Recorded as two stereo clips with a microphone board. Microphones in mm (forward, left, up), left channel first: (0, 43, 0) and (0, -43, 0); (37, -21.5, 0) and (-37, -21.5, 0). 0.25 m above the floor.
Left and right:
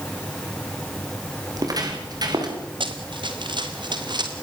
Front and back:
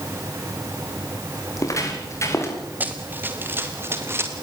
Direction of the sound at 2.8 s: 110° right.